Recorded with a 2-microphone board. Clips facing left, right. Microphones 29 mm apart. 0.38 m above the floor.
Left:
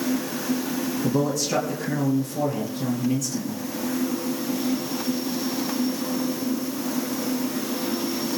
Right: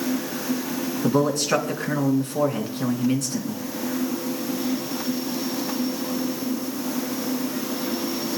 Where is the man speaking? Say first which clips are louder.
Right 4 dB; 70° right (ahead or behind), 4.5 m.